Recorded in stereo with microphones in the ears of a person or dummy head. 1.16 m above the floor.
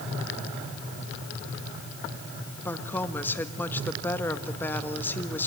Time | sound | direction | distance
2.6 | a woman speaking | 10° left (ahead or behind) | 1.6 m